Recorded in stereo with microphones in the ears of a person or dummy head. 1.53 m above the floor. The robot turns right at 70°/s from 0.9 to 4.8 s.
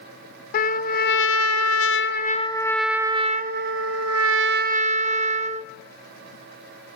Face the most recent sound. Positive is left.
turn(degrees=-35)